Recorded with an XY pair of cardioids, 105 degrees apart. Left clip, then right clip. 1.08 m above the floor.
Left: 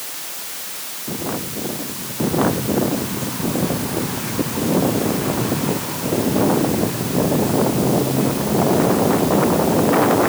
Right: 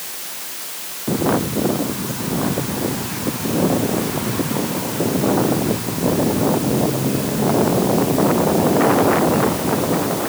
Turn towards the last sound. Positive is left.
No sound to turn to.